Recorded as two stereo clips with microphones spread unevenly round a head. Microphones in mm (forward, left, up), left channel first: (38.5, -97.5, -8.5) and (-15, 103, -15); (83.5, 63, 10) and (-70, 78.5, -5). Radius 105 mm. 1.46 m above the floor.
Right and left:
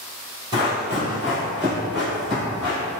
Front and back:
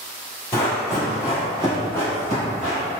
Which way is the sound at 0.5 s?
50° left.